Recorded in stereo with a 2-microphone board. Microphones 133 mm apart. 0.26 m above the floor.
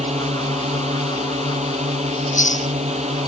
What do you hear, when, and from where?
0.0 s a drone: 55° right (ahead or behind)
2.1 s chewing: 70° left (ahead or behind)